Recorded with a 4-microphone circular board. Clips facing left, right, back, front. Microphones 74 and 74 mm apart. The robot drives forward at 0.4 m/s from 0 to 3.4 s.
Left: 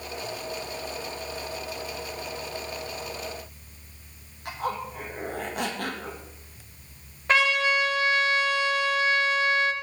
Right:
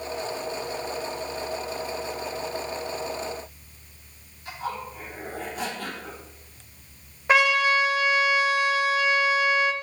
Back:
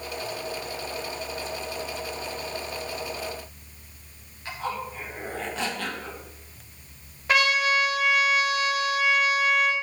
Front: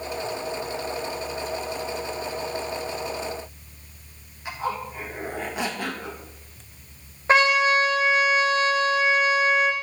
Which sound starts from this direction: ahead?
A trumpet, at 7.3 s.